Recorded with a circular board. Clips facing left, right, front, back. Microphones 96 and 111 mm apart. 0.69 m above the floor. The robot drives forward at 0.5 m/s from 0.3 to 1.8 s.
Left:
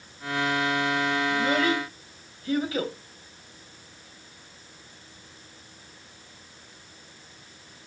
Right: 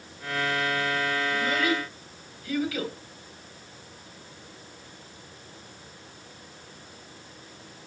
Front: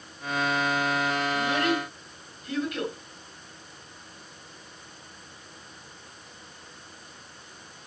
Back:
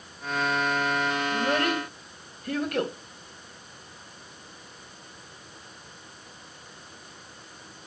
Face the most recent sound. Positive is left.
turn(degrees=145)